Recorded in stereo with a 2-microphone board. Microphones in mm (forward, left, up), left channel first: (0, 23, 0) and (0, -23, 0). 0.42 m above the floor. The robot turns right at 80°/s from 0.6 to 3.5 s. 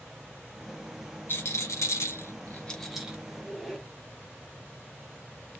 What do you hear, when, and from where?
1.3 s a rattle: 50° left (ahead or behind), 0.9 m; by 3.2 s 20° right (ahead or behind), 0.9 m
3.3 s a squeak: 15° left (ahead or behind), 0.9 m; by 3.9 s centre (ahead or behind), 0.9 m